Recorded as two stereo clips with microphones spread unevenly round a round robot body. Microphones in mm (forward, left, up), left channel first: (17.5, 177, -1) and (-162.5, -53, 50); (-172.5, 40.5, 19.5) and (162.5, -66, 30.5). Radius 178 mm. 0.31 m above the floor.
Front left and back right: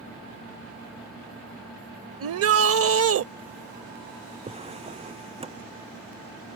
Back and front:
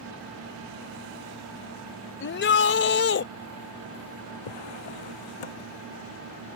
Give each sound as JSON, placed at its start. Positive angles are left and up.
{"t": 2.2, "sound": "a shout", "azimuth_deg": -155}
{"t": 4.5, "sound": "a drawer", "azimuth_deg": 165}